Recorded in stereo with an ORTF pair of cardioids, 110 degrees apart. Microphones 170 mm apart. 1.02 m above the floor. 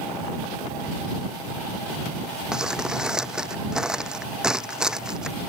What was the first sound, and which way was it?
Crumpling, 5° right.